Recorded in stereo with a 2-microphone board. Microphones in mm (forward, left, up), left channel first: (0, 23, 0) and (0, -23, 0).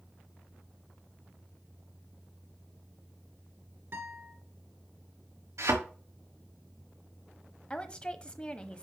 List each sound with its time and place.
3.9 s a guitar: 50° right (ahead or behind), 2.5 m
5.6 s a thud: 75° right (ahead or behind), 5 m
7.7 s a woman speaking: 20° left (ahead or behind), 1.1 m